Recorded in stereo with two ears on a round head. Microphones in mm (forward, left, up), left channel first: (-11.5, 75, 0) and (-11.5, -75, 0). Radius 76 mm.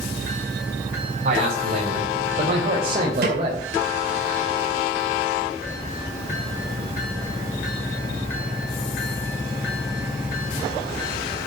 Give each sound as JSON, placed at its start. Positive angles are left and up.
{"t": 1.2, "sound": "a man speaking", "side_deg": -55, "distance_m": 4.0}
{"t": 3.2, "sound": "a snare drum", "side_deg": -70, "distance_m": 5.0}